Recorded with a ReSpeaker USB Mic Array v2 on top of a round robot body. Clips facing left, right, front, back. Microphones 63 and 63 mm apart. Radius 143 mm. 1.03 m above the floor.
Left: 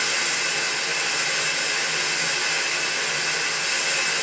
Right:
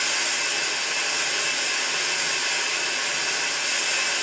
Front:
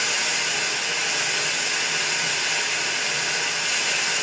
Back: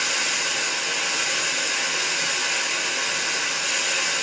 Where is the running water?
155° left, 1.5 m.